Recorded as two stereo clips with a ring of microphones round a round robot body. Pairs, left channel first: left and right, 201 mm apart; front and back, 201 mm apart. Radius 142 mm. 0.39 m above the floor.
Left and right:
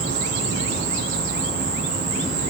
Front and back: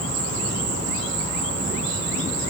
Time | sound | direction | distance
0.0 | an insect | 145° right | 6.5 m